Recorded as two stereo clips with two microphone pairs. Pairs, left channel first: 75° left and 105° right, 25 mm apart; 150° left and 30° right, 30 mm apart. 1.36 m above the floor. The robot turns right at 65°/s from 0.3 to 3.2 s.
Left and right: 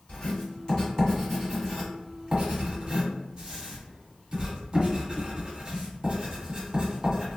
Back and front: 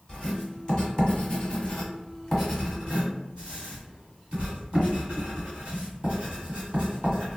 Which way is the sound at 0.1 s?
100° left.